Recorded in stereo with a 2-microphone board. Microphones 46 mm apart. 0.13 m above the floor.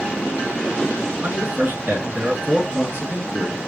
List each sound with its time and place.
1.2 s a man speaking: 50° right (ahead or behind), 2.5 m